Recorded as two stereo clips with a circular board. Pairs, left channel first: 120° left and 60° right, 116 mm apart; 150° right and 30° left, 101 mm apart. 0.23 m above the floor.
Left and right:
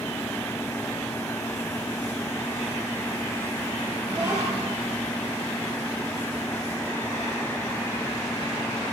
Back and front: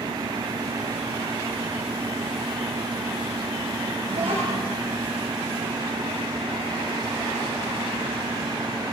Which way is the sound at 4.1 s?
5° left.